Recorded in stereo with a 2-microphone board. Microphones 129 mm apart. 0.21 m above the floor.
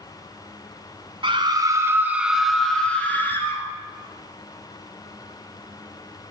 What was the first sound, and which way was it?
A scream, 40° right (ahead or behind).